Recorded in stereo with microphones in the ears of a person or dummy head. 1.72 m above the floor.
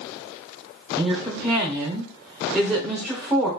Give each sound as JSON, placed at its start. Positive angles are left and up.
{"t": 1.0, "sound": "a woman speaking", "side_deg": -10, "distance_m": 0.8}